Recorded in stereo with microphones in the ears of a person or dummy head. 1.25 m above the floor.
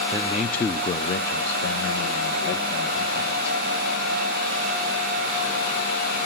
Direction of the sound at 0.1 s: 10° right (ahead or behind).